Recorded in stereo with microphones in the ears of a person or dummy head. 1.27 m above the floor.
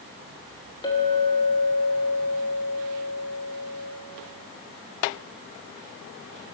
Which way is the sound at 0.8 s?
25° left (ahead or behind).